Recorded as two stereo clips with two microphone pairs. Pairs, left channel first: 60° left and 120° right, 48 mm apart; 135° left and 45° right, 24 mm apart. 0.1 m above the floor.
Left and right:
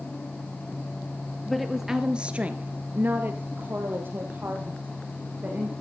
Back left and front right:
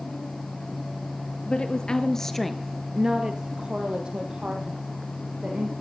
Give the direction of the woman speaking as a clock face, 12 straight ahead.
7 o'clock.